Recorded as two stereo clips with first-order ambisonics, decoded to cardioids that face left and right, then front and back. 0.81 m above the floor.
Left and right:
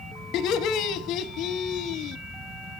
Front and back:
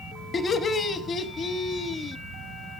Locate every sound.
0.3 s laughter: 65° left, 1.0 m